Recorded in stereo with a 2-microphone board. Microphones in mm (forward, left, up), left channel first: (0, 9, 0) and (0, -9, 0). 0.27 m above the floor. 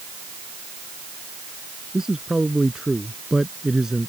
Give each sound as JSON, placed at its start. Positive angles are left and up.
{"t": 1.9, "sound": "a man speaking", "side_deg": -35}